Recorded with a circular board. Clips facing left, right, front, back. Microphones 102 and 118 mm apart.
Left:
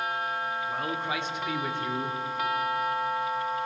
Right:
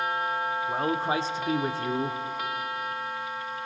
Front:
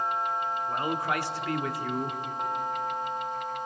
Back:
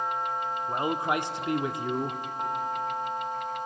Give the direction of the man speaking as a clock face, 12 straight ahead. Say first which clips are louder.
Right 4 dB, back 4 dB; 4 o'clock.